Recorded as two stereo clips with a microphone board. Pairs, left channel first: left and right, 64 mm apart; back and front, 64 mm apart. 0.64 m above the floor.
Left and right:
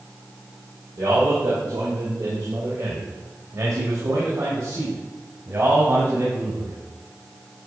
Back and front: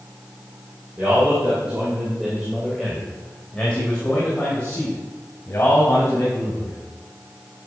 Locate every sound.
1.0 s a man speaking: 60° right, 3 m; by 6.8 s 130° right, 5 m